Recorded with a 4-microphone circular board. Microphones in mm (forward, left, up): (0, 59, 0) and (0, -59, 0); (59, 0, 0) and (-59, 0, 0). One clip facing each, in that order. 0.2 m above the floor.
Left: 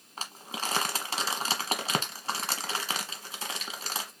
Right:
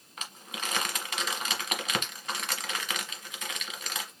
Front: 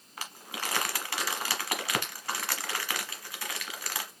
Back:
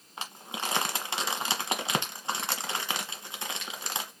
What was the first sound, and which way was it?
Crumpling, 125° left.